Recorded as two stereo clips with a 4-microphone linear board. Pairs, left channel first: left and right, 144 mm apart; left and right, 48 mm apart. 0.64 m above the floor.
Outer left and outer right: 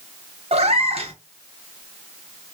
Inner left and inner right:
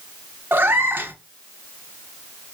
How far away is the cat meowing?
About 0.8 m.